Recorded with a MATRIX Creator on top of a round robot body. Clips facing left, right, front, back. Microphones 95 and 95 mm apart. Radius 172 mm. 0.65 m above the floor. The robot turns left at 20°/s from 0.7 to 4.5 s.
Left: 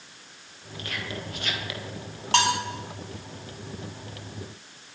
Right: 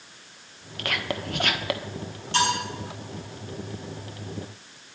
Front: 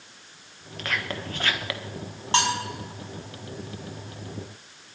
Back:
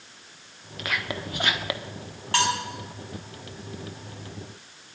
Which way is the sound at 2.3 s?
65° left.